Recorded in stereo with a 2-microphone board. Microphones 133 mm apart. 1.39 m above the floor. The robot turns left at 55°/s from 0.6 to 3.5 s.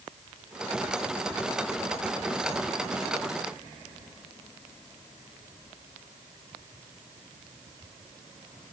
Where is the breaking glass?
No breaking glass in this recording.